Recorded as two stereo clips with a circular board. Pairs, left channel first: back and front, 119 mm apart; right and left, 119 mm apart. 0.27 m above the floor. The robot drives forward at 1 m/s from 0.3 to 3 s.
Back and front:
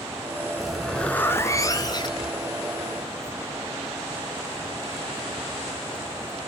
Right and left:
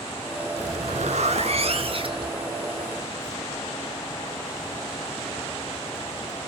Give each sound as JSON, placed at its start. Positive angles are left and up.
{"t": 0.6, "sound": "a zipper", "azimuth_deg": 85, "distance_m": 1.7}